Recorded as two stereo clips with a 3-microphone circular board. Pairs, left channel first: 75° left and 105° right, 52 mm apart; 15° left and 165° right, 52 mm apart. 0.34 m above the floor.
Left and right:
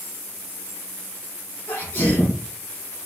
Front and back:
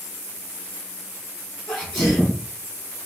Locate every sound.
1.7 s a sneeze: 100° left, 3 m